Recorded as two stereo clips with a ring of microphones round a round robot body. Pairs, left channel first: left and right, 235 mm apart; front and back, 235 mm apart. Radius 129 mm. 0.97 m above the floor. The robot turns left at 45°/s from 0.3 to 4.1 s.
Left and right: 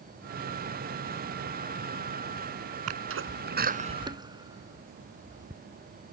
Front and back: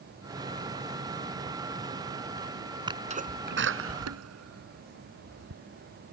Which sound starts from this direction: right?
A sneeze, at 2.9 s.